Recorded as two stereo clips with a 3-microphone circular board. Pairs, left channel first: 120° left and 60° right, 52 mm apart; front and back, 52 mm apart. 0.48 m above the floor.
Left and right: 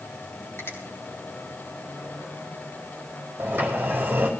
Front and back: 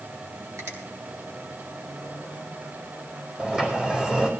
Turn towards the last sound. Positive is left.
turn(degrees=-115)